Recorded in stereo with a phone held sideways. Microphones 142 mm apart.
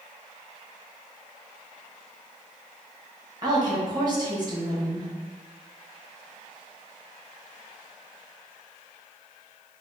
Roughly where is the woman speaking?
Right.